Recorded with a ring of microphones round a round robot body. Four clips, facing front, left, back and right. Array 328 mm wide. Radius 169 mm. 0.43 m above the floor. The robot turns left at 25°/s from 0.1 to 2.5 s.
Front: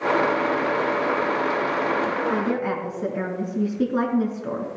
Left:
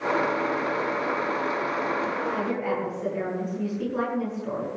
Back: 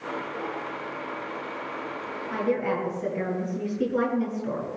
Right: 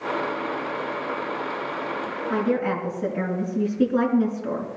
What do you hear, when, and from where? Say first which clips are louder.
2.3 s a woman speaking: right 4 dB, front 2 dB; 30° right, 5.5 m; by 4.7 s 35° right, 5.5 m